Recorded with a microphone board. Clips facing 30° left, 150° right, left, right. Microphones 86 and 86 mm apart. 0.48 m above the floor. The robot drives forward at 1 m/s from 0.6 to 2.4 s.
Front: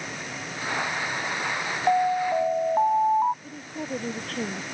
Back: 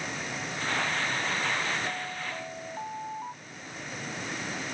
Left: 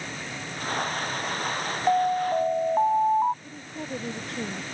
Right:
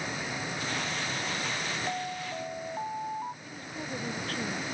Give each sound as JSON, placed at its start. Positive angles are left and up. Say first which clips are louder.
{"t": 1.9, "sound": "an alarm", "louder": "front 15 dB, left 13 dB", "azimuth_deg": 55}
{"t": 3.4, "sound": "a woman speaking", "louder": "front 7 dB, left 2 dB", "azimuth_deg": 25}